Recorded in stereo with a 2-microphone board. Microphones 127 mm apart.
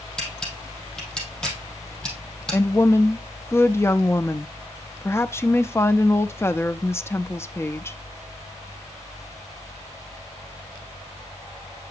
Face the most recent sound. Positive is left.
turn(degrees=20)  # may be behind; listen again after turning